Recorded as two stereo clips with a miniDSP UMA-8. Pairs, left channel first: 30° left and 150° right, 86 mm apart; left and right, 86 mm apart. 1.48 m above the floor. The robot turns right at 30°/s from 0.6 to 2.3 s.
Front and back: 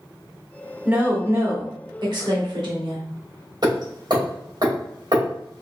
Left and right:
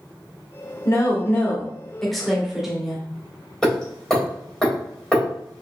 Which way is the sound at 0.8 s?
140° left.